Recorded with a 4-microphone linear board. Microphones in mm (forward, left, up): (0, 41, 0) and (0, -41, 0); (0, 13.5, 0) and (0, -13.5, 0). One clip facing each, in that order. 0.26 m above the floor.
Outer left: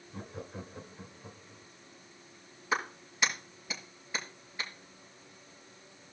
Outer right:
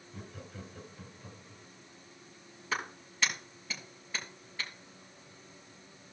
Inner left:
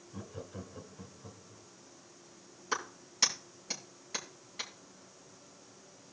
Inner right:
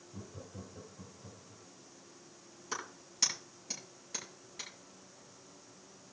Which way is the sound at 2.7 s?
20° left (ahead or behind).